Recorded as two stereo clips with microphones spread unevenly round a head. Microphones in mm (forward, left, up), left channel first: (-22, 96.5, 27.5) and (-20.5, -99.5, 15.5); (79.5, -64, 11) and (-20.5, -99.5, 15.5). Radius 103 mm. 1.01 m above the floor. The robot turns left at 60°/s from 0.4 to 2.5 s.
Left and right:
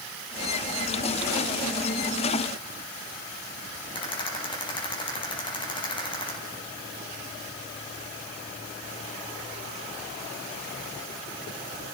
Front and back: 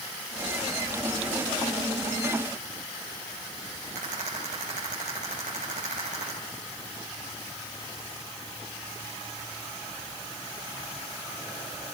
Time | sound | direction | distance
4.0 | a rattle | 155° left | 5 m